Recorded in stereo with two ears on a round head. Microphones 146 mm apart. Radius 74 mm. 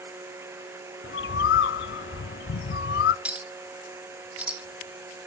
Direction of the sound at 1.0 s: 75° left (ahead or behind).